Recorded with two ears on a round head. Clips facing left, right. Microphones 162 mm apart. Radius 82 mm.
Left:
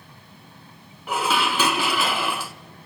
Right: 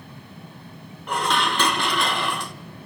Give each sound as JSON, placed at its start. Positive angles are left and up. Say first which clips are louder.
{"t": 1.1, "sound": "dishes clattering", "louder": "even", "side_deg": 5, "distance_m": 0.6}